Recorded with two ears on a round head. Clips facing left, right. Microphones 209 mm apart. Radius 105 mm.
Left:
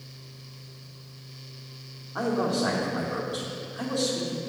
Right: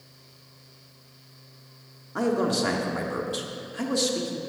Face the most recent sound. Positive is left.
turn(degrees=-35)  # may be behind; listen again after turning